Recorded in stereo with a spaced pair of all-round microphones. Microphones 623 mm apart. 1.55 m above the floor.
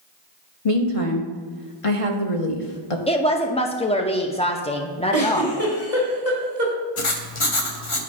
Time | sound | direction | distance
0.7 | a woman speaking | 60° left (ahead or behind) | 1.2 m
3.1 | a woman speaking | 10° left (ahead or behind) | 0.6 m
5.1 | a giggle | 35° left (ahead or behind) | 2 m
7.0 | writing | 55° left (ahead or behind) | 0.8 m